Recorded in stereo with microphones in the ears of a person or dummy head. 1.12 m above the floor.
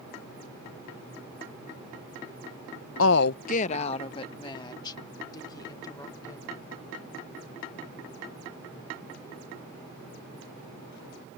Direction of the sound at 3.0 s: 60° left (ahead or behind).